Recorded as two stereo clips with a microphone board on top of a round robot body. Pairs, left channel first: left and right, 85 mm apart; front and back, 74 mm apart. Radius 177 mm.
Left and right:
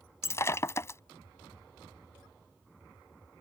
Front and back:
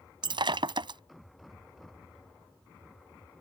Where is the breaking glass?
150° left.